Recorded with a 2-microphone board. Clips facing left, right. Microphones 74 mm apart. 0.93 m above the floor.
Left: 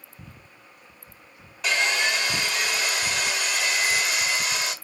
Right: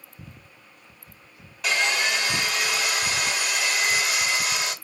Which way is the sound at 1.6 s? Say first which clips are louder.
Even; centre (ahead or behind).